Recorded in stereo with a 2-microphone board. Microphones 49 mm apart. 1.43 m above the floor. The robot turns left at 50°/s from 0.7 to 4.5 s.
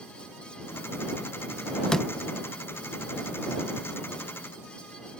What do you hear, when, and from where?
1.9 s a door slam: 15° left (ahead or behind); by 2.1 s 5° left (ahead or behind)